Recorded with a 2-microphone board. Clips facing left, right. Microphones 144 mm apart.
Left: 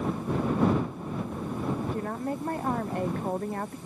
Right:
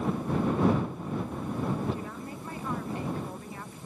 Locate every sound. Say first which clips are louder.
1.9 s a woman speaking: left 7 dB; 55° left (ahead or behind)